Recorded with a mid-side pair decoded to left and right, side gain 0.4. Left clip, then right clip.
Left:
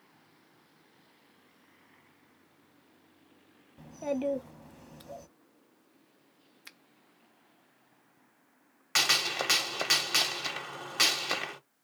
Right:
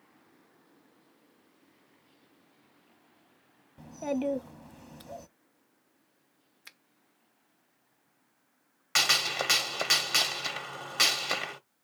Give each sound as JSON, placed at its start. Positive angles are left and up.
{"t": 3.8, "sound": "a child speaking", "azimuth_deg": -20, "distance_m": 0.9}
{"t": 6.7, "sound": "a finger snap", "azimuth_deg": 5, "distance_m": 0.8}
{"t": 8.9, "sound": "a gunshot", "azimuth_deg": -5, "distance_m": 1.0}